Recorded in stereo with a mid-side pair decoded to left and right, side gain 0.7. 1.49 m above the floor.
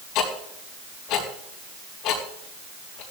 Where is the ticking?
60° left, 4.5 m.